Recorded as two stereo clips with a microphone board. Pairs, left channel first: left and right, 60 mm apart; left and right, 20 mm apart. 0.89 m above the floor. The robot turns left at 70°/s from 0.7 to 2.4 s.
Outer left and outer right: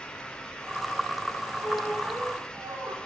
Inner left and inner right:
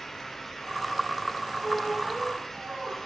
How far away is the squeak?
About 1.7 m.